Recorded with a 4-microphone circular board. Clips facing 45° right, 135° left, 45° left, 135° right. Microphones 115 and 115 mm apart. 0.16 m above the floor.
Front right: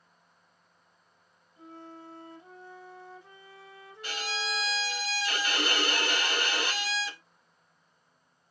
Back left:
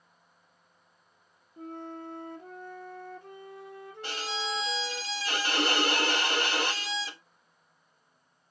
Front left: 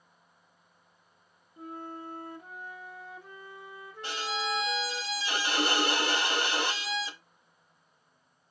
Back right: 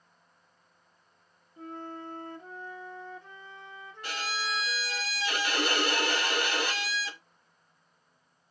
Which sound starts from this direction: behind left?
A flute, at 1.6 s.